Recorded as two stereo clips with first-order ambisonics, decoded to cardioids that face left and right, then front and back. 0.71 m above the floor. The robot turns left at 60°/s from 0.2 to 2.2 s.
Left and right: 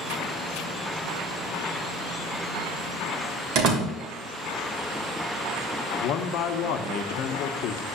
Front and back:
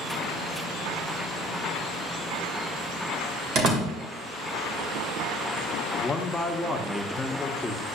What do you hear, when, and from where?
3.5 s a door slam: 130° right, 2 m
6.0 s a man speaking: 80° left, 0.8 m